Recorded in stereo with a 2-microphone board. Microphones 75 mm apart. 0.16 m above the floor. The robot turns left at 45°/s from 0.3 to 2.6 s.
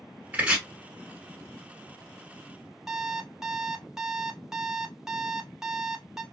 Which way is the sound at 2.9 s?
5° right (ahead or behind).